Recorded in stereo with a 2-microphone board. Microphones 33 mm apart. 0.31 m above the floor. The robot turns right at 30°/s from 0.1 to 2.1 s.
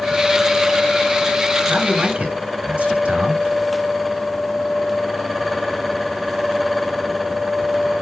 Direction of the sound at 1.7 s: 50° right (ahead or behind).